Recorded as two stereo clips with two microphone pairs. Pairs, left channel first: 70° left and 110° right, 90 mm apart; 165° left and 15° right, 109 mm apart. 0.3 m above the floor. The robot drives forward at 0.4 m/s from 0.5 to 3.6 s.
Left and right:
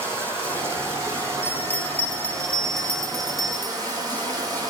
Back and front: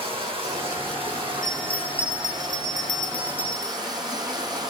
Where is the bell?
90° left, 0.8 m; by 3.8 s 160° left, 1.1 m.